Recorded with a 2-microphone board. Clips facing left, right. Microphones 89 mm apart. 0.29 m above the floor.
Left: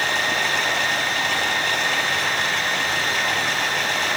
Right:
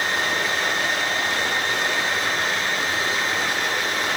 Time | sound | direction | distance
0.0 | running water | 75° left (ahead or behind) | 4.5 m